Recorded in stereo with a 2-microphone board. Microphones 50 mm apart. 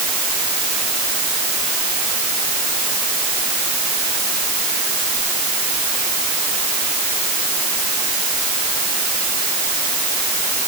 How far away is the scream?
No scream in this recording.